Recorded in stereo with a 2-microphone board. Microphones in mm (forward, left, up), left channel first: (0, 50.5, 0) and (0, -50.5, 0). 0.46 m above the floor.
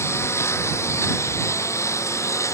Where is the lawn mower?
25° left (ahead or behind); by 2.5 s 30° left (ahead or behind).